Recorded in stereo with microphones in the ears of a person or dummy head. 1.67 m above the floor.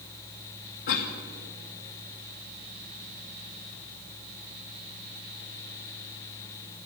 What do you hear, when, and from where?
0.9 s a cough: 50° left (ahead or behind), 1.8 m